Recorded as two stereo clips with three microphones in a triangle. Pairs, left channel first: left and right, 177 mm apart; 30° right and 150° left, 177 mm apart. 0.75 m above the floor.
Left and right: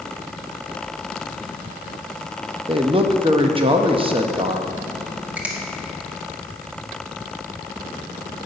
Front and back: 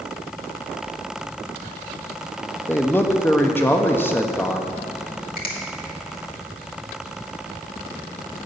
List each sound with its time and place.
2.7 s a man speaking: 95° right, 0.7 m
5.4 s a finger snap: 10° right, 1.6 m